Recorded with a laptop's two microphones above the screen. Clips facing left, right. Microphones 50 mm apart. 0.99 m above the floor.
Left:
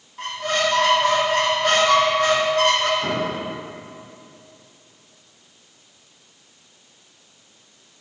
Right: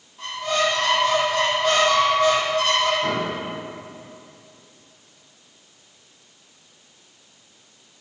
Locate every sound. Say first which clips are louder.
0.2 s a squeak: even; 55° left (ahead or behind), 1.4 m
3.0 s an explosion: even; 20° left (ahead or behind), 2 m